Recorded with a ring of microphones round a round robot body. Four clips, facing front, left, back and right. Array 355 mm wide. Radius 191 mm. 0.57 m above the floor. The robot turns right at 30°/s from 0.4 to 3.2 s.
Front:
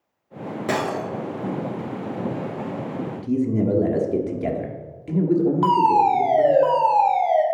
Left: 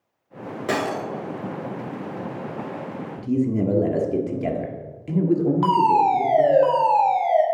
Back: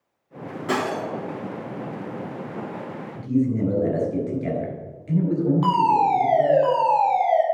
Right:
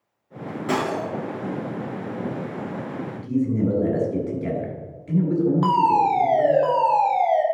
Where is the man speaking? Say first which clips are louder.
Left 1 dB, back 1 dB; 45° left, 1.6 m; by 6.6 s 50° left, 1.6 m.